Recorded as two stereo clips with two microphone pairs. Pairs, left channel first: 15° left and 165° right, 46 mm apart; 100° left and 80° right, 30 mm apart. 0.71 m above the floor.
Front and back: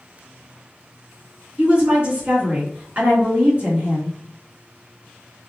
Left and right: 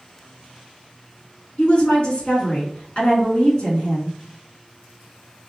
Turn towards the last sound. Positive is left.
turn(degrees=135)